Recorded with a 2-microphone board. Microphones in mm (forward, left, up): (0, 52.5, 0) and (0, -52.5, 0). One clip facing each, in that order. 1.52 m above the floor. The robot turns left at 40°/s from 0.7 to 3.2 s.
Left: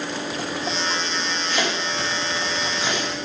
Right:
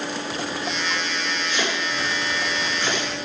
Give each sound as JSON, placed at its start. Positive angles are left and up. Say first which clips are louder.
{"t": 1.5, "sound": "chopping", "louder": "left 2 dB", "side_deg": 55, "distance_m": 5.0}